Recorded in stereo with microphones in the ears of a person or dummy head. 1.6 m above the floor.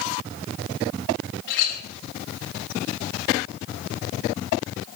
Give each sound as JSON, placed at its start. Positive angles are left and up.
{"t": 1.5, "sound": "a clink", "side_deg": 65, "distance_m": 5.0}